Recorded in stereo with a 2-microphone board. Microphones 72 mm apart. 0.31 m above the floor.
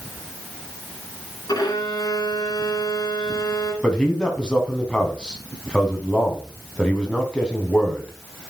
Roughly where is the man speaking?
Centre.